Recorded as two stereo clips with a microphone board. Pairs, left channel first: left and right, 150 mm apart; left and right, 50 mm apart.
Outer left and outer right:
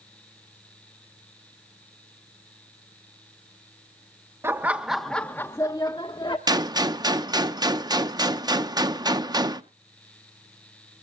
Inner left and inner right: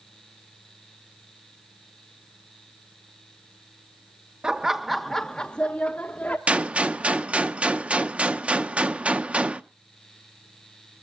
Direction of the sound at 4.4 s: 15° right (ahead or behind).